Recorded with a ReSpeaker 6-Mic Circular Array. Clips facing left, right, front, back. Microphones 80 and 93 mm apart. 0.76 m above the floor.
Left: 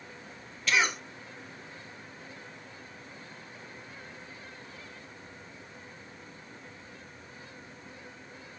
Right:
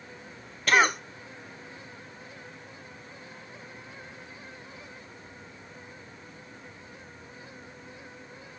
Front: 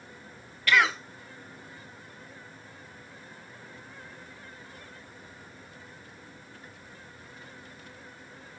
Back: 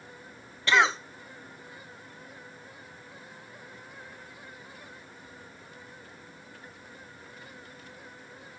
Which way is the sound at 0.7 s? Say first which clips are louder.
Right 6 dB, back 1 dB; 120° right.